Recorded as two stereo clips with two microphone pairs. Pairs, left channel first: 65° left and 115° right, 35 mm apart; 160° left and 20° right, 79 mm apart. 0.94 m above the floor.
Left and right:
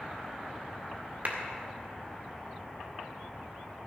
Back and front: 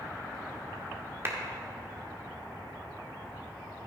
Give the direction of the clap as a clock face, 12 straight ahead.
3 o'clock.